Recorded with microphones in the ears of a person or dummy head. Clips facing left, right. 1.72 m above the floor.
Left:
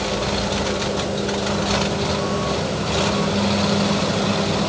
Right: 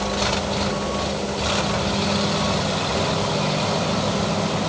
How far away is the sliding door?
I don't hear a sliding door.